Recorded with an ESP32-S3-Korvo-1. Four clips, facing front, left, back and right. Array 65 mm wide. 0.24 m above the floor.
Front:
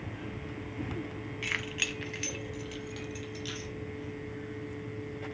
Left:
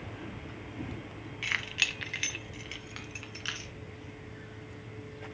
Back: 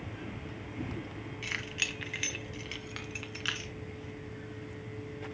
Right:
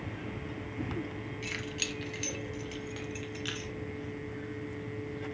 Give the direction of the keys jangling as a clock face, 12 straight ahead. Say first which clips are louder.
Left 8 dB, front 2 dB; 10 o'clock.